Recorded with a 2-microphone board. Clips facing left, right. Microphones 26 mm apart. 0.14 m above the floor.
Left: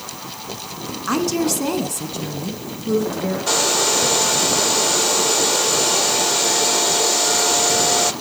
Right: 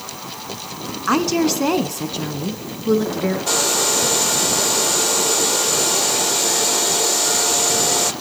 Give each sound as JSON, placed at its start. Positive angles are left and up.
{"t": 1.1, "sound": "a woman speaking", "side_deg": -20, "distance_m": 1.1}
{"t": 3.5, "sound": "a hair dryer", "side_deg": 5, "distance_m": 0.7}